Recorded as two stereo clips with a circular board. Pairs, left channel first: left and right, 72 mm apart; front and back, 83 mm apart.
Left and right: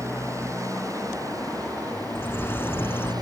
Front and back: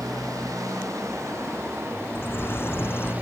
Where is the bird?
50° left.